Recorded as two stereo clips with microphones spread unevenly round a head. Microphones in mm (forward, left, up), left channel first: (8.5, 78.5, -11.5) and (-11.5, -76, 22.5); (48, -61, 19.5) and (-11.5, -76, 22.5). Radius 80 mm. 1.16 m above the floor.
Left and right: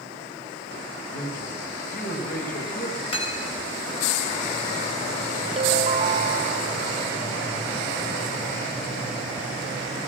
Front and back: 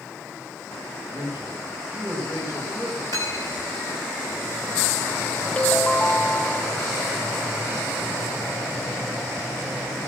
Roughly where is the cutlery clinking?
Behind left.